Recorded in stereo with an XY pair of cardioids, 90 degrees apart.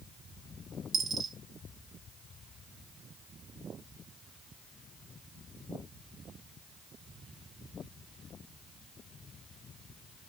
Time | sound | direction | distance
0.9 | a dropped coin | 60° right | 1.1 m